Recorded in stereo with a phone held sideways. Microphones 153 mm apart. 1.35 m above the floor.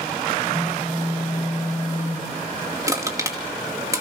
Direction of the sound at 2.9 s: 20° right (ahead or behind).